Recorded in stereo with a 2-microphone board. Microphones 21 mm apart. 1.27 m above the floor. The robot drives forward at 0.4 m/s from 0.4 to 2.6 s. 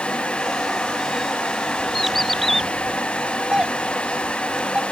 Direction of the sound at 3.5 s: 40° right (ahead or behind).